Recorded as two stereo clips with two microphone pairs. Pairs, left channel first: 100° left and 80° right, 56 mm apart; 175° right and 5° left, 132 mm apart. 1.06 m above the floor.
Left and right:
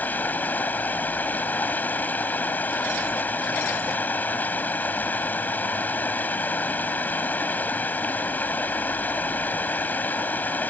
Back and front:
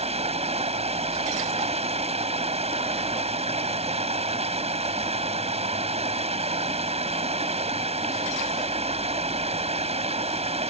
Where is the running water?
40° left.